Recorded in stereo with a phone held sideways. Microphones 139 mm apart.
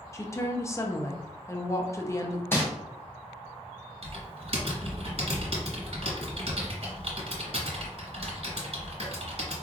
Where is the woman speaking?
20° left (ahead or behind), 0.5 m.